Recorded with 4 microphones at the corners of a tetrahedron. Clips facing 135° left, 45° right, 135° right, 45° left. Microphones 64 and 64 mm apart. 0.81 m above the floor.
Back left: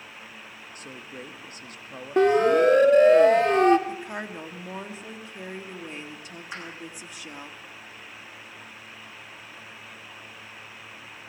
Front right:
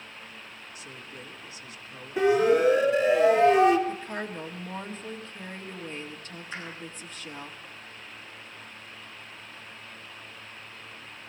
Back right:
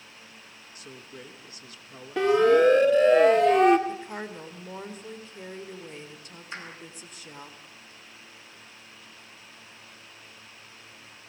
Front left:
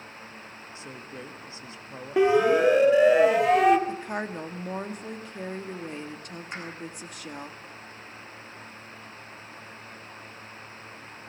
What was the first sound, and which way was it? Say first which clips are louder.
A man speaking: back left 5 dB, front left 3 dB; 105° left.